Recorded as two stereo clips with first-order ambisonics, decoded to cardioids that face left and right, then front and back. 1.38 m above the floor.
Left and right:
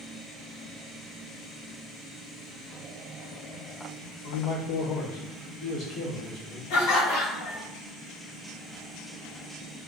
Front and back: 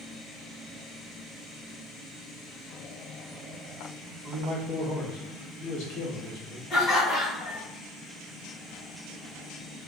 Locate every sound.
4.2 s a man speaking: 70° left, 1.1 m; by 6.6 s 15° left, 1.9 m
6.7 s laughter: 65° left, 1.5 m